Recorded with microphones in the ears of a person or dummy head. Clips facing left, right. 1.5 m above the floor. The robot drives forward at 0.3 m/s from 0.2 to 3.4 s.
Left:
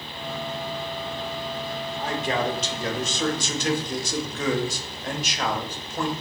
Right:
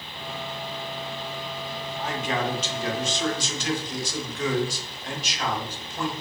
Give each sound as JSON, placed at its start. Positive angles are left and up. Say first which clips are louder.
{"t": 2.0, "sound": "a man speaking", "louder": "left 2 dB", "side_deg": 30, "distance_m": 1.0}